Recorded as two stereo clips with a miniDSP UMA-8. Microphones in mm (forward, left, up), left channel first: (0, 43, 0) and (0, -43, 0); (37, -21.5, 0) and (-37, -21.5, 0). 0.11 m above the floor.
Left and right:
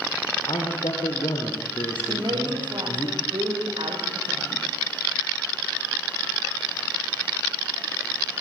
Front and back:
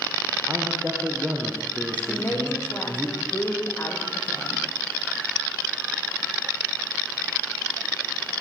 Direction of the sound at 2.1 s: 60° right.